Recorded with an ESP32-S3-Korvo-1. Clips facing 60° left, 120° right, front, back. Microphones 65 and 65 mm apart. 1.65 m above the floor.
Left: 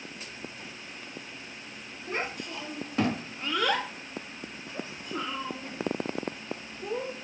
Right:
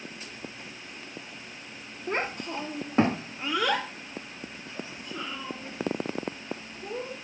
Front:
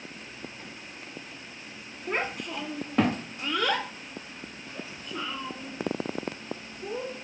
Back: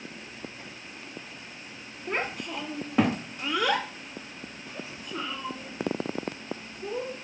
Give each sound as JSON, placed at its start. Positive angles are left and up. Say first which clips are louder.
{"t": 2.1, "sound": "a child speaking", "louder": "right 3 dB, even", "azimuth_deg": -90, "distance_m": 1.0}